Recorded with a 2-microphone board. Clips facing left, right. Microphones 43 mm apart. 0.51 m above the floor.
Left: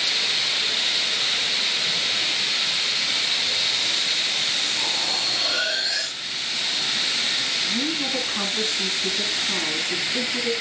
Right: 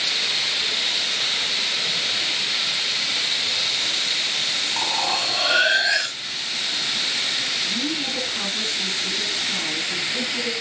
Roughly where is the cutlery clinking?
Right.